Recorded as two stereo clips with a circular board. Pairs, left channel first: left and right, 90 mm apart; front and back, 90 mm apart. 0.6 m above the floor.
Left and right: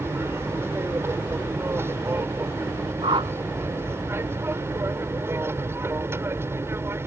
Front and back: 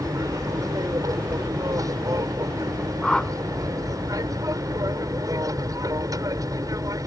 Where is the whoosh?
85° right.